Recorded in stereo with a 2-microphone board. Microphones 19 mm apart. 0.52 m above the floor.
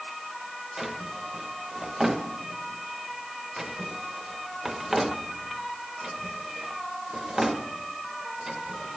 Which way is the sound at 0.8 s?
15° right (ahead or behind).